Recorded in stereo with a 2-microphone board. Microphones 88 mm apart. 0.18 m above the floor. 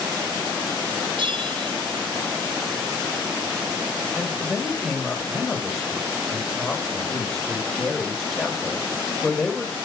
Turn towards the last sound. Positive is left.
turn(degrees=0)  # may be behind; listen again after turning